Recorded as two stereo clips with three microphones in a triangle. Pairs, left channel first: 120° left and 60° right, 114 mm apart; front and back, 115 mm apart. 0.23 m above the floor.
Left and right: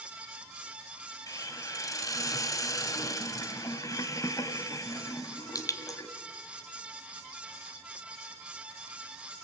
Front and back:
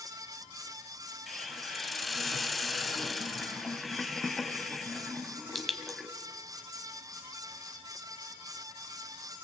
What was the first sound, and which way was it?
A hiss, 90° left.